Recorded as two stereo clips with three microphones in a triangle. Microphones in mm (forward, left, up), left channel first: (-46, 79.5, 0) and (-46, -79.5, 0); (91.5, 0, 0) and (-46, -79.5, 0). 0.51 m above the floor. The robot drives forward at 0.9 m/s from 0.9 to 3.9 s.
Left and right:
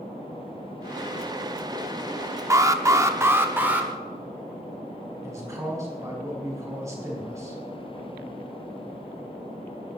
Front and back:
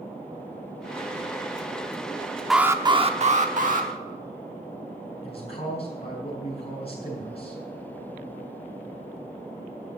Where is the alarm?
60° right, 0.6 m; by 3.9 s 170° right, 1.3 m.